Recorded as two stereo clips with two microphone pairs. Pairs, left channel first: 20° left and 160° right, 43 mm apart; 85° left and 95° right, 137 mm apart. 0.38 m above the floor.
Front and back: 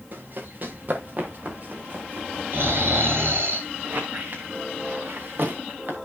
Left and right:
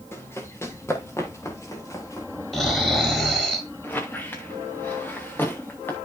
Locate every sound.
0.1 s running footsteps: 155° left, 4.5 m; by 2.3 s 150° left, 5.5 m
2.5 s snoring: 175° left, 5.5 m
3.8 s a squeak: 160° left, 3.5 m